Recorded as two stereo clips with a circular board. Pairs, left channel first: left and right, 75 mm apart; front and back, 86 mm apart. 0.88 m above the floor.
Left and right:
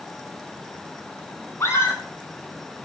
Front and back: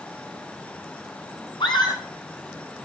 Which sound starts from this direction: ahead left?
A scream, at 1.6 s.